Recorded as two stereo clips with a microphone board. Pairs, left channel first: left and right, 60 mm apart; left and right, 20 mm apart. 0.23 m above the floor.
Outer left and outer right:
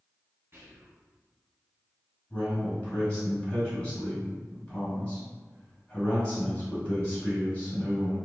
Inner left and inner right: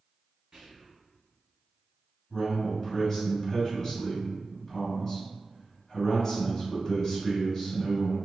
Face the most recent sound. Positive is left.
turn(degrees=20)  # may be behind; listen again after turning